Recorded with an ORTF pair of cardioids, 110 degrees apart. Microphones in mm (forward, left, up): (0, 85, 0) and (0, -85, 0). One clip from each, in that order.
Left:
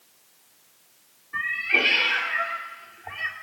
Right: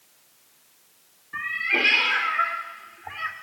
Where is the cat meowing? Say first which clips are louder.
Left 1 dB; 20° right, 1.6 m.